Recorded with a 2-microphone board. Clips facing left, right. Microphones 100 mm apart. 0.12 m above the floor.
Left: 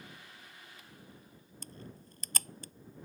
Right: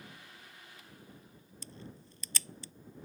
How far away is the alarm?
No alarm in this recording.